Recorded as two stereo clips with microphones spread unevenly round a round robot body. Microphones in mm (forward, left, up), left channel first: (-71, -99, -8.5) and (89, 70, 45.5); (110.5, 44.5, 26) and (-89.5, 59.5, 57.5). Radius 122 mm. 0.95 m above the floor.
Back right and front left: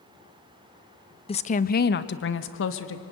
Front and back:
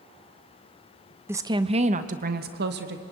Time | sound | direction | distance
1.3 | a woman speaking | 100° right | 0.7 m